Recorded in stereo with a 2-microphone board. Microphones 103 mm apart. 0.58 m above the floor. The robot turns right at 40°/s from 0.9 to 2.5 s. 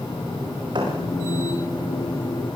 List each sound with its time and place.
0.8 s a thud: 55° right (ahead or behind), 9 m; by 1.0 s 50° right (ahead or behind), 9 m